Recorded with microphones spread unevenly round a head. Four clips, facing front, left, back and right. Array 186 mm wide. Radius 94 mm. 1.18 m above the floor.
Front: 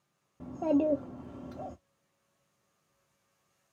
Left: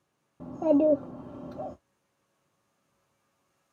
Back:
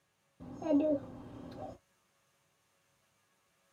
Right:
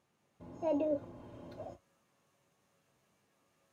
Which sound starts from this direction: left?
A child speaking, at 0.4 s.